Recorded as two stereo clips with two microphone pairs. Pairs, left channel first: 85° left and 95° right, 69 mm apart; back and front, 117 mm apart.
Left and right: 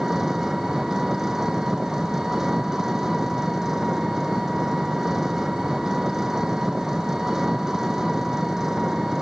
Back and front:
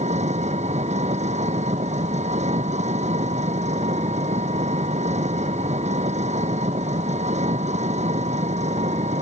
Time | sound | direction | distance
0.0 | an engine running | 10° right | ?